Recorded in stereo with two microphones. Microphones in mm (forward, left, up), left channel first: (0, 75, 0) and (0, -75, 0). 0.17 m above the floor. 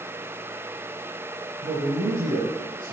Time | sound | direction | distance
1.6 | a man speaking | 65° right (ahead or behind) | 4 m